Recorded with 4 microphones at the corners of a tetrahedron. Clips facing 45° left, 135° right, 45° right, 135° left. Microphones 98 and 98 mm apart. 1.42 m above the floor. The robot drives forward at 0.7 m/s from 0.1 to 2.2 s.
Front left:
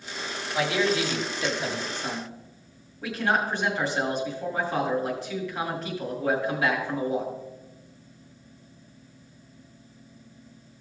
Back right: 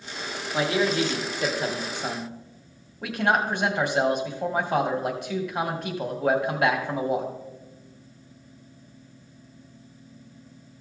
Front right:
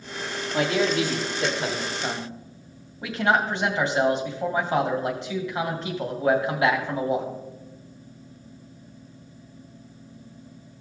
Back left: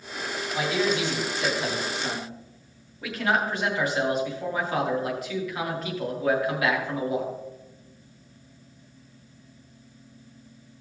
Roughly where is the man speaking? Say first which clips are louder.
Back right 1 dB, front right 3 dB; right.